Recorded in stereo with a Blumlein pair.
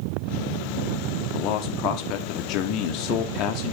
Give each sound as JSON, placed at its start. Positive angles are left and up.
{"t": 1.3, "sound": "a man speaking", "azimuth_deg": 40, "distance_m": 1.4}